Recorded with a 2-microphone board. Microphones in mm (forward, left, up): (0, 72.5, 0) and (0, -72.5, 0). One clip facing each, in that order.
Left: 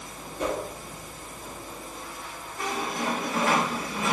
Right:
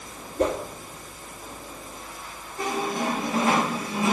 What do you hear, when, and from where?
0.4 s a whoosh: 55° right (ahead or behind), 2 m
2.6 s a squeak: 25° right (ahead or behind), 3.5 m